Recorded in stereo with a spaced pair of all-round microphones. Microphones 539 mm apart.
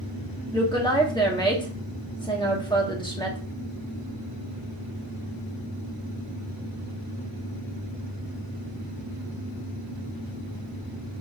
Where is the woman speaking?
10° left (ahead or behind), 0.9 m.